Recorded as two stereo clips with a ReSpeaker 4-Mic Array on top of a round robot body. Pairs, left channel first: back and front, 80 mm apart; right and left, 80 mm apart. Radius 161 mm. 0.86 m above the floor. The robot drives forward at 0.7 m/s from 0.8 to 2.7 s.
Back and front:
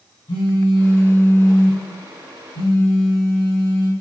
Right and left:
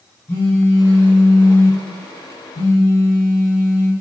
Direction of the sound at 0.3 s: 160° right.